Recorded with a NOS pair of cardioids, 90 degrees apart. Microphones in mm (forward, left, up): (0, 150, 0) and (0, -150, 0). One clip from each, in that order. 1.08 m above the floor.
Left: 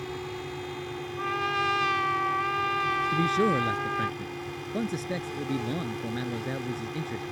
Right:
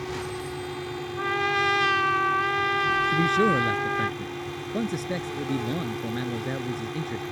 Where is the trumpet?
35° right.